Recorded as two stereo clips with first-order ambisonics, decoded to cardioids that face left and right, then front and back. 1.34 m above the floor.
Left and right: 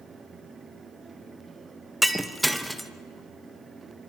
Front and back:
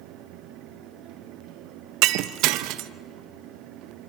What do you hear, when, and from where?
2.0 s breaking glass: straight behind, 0.7 m